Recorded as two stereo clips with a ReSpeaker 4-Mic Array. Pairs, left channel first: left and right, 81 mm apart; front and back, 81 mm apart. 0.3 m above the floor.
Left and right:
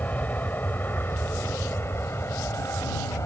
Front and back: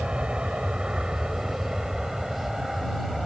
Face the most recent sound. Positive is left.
turn(degrees=95)